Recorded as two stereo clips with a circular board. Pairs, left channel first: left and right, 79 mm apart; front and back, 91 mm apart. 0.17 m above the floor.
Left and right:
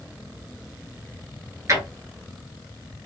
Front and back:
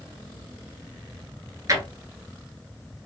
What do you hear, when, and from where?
1.7 s a drawer: 135° right, 1.1 m